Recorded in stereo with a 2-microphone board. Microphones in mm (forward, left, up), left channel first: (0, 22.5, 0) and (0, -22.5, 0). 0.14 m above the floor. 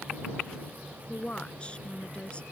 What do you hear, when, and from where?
1.1 s a woman speaking: 25° left (ahead or behind)